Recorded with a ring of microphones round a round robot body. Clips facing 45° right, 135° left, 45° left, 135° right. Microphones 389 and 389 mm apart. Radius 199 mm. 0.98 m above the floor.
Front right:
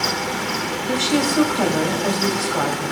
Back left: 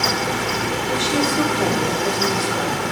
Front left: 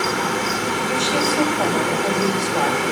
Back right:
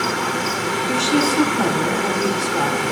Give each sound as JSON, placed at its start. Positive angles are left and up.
{"t": 0.9, "sound": "a woman speaking", "azimuth_deg": -70, "distance_m": 4.5}